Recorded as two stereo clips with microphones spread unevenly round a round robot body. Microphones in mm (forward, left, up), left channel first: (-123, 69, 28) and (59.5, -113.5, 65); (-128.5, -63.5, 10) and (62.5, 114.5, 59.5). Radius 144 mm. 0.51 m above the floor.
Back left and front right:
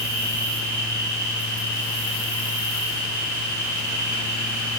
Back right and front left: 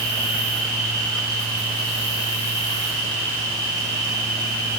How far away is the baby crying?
I don't hear a baby crying.